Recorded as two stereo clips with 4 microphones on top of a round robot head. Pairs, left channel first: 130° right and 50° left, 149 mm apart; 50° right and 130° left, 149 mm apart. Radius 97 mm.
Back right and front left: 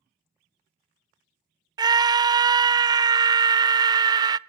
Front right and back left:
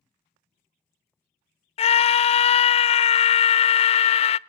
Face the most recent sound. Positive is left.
turn(degrees=-10)